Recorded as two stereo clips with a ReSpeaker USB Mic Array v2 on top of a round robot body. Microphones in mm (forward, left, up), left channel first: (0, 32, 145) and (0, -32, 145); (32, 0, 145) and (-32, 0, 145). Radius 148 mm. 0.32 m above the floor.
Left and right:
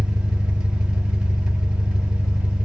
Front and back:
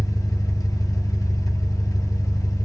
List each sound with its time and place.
0.0 s an engine running: 15° right, 1.1 m